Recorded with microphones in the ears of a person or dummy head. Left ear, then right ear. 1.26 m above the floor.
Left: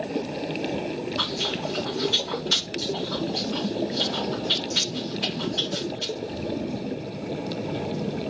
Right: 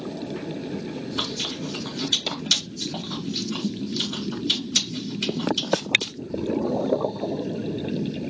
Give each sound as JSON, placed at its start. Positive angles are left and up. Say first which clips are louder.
{"t": 1.2, "sound": "chewing", "louder": "left 1 dB", "side_deg": -75, "distance_m": 1.1}